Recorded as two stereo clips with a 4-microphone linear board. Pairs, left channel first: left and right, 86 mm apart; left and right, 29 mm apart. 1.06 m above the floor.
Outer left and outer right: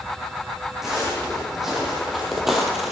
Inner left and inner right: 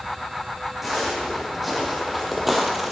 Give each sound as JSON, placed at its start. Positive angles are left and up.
{"t": 0.8, "sound": "footsteps", "side_deg": -5, "distance_m": 4.0}